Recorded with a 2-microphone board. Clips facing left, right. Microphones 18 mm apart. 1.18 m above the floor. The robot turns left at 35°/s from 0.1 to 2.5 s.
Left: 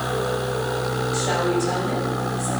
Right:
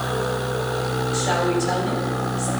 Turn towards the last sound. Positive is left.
turn(degrees=-50)